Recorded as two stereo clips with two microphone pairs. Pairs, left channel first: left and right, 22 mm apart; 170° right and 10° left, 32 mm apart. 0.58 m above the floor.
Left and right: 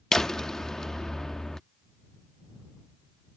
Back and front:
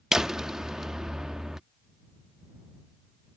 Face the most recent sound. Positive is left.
turn(degrees=60)